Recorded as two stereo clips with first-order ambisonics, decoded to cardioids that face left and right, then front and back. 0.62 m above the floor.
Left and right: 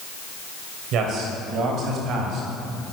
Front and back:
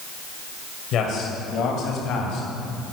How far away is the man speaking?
About 2.5 m.